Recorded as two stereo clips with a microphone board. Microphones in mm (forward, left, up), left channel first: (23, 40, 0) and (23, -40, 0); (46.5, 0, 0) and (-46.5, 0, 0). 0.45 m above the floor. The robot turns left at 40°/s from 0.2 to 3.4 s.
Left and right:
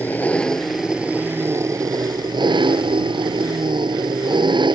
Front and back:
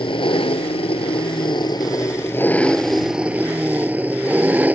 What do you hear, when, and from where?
0.0 s an engine running: 20° left; by 4.8 s 110° right